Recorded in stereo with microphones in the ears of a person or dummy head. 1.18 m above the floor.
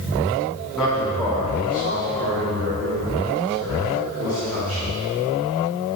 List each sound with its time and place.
0.8 s a man speaking: 5° right (ahead or behind), 1.8 m; by 4.8 s 85° right, 4.5 m